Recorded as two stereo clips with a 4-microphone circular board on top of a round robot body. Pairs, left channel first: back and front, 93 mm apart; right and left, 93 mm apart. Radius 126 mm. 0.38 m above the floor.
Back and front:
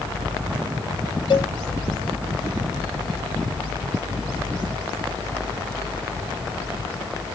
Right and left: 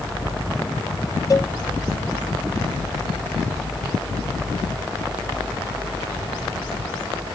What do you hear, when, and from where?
1.3 s a cowbell: 145° right